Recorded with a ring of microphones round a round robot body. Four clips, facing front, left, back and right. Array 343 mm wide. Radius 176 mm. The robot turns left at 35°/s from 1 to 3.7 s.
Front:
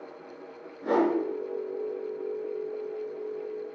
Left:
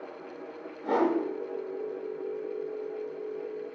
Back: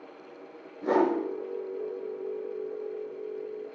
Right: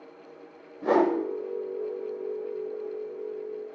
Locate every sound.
0.8 s a whoosh: 95° right, 1.9 m; by 1.1 s 100° right, 1.9 m